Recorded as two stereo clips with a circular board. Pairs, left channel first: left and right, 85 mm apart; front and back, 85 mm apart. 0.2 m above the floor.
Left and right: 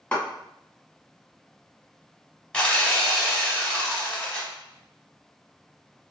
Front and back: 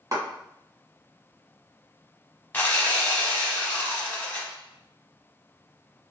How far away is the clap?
About 1.4 m.